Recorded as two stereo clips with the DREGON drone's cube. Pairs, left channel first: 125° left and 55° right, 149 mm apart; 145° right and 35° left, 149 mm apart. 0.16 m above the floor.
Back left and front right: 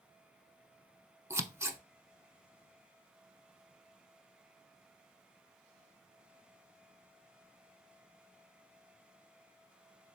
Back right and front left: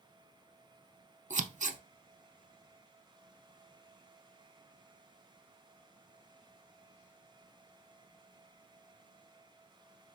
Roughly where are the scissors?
Ahead.